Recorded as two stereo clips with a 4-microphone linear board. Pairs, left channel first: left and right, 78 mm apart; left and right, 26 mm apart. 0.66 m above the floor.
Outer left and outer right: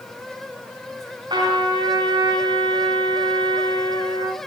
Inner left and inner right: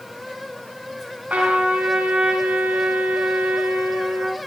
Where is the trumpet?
65° right (ahead or behind), 5.5 m.